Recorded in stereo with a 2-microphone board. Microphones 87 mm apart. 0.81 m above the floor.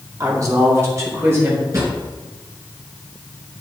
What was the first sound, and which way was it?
A woman speaking, 40° right (ahead or behind).